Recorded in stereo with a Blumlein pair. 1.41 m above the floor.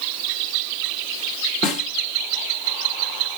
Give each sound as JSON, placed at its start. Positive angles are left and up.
{"t": 1.6, "sound": "a snare drum", "azimuth_deg": 30, "distance_m": 1.0}